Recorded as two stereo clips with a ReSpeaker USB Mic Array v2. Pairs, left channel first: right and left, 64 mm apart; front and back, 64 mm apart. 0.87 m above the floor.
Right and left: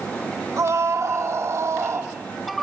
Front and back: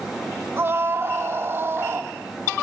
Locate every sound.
0.6 s a scream: 130° left, 2 m